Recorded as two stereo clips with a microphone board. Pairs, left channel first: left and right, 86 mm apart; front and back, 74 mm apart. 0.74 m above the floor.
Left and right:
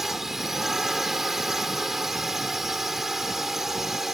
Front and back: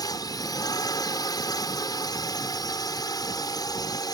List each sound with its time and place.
0.0 s a drone: 5° right